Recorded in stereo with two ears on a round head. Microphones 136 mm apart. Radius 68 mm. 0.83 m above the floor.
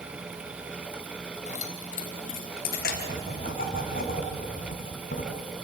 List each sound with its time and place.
1.5 s keys jangling: 50° left (ahead or behind), 3 m; by 3.8 s 75° left (ahead or behind), 4.5 m
2.8 s writing: 65° left (ahead or behind), 3.5 m